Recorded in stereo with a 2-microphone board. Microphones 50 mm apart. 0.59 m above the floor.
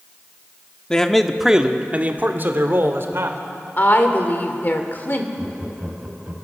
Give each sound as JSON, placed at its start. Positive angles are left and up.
{"t": 0.9, "sound": "a man speaking", "side_deg": 15, "distance_m": 1.1}
{"t": 3.8, "sound": "a woman speaking", "side_deg": 40, "distance_m": 2.0}
{"t": 5.4, "sound": "laughter", "side_deg": -25, "distance_m": 4.0}